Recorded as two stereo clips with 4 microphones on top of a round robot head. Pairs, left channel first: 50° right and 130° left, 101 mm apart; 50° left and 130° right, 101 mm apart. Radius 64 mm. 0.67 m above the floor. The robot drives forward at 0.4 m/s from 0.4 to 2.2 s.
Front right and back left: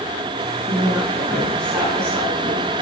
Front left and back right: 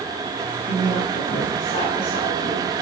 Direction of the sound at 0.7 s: 70° left.